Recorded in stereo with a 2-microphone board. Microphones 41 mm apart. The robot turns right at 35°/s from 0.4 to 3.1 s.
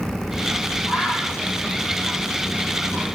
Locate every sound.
0.9 s a bird: 30° right (ahead or behind), 5 m; by 3.0 s 70° right (ahead or behind), 5 m